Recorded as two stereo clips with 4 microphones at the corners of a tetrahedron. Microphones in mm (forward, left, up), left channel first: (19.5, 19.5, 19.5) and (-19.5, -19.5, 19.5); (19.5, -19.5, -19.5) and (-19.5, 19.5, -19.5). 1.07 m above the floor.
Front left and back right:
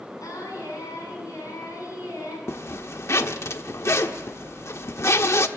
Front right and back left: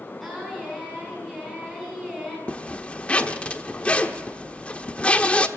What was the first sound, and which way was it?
Singing, 45° left.